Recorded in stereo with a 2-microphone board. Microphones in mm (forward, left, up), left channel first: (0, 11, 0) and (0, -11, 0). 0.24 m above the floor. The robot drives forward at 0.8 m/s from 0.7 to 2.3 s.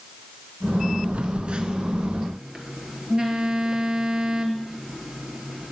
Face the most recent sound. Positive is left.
turn(degrees=-30)  # may be behind; listen again after turning